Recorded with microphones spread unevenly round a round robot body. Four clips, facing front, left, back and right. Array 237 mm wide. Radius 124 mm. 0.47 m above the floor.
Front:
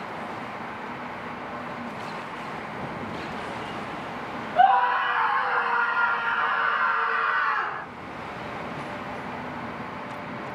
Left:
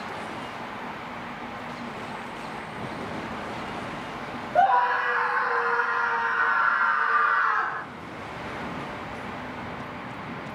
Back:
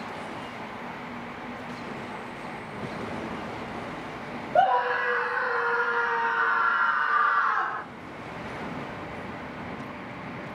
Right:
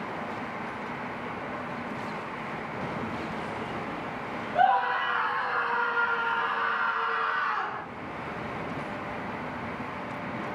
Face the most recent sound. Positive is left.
turn(degrees=-165)